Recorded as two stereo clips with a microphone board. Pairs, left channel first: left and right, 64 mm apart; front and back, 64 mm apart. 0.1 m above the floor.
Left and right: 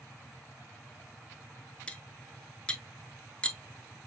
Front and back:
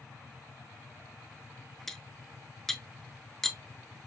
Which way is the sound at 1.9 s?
75° left.